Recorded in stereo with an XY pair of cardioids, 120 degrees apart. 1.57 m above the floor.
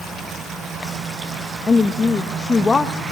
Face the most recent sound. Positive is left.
turn(degrees=30)